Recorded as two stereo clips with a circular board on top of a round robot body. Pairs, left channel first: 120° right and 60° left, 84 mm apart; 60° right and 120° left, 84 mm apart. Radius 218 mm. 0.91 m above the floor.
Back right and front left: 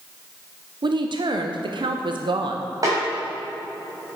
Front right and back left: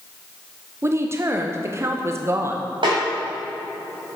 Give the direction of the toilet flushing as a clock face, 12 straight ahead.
I don't hear a toilet flushing.